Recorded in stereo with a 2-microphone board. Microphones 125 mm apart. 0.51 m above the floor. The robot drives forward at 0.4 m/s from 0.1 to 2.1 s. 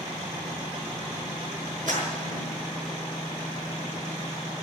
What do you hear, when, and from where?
1.9 s a clap: 80° right, 5.5 m